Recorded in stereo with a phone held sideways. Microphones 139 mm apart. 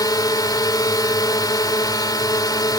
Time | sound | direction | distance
0.0 | a drone | 30° left (ahead or behind) | ?